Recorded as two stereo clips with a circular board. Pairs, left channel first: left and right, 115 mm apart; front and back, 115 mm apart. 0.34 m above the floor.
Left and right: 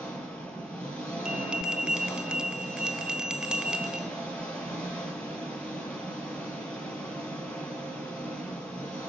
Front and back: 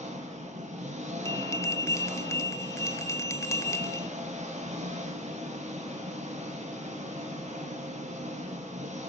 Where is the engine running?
170° left, 6 m.